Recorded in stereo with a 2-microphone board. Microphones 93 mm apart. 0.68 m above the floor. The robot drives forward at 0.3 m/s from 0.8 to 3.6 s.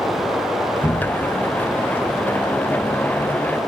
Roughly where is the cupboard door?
Centre.